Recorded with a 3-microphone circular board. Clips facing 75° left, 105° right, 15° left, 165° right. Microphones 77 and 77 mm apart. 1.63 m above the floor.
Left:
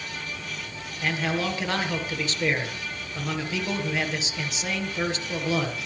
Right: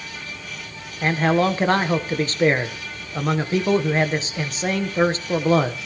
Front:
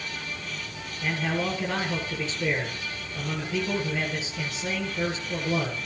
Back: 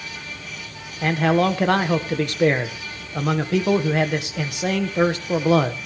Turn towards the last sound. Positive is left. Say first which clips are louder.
# right 8 dB, back 10 dB
turn(degrees=-150)